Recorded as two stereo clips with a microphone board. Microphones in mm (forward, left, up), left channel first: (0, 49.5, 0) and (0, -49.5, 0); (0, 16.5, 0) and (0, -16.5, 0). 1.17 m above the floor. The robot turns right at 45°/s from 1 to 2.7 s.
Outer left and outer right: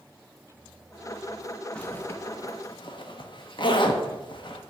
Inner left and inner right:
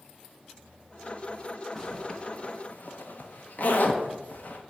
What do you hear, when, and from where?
1.8 s a zipper: 10° left (ahead or behind), 1.0 m; by 4.6 s 55° left (ahead or behind), 1.0 m